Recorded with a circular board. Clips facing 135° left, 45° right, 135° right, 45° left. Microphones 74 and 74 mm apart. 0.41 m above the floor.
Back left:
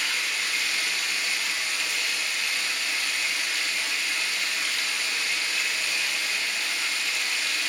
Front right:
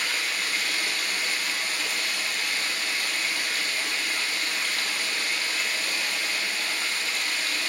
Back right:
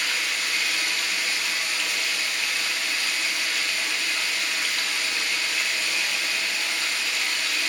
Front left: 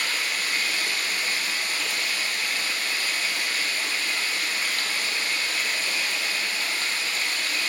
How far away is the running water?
About 1.1 m.